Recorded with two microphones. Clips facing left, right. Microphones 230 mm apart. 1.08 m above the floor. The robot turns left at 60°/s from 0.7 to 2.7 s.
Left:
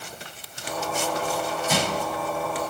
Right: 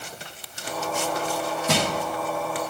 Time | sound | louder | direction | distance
1.7 | crushing | right 2 dB | 70° right (ahead or behind) | 1.3 m